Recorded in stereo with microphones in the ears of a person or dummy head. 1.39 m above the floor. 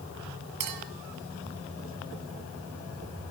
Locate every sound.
0.6 s a clink: 55° right (ahead or behind), 2 m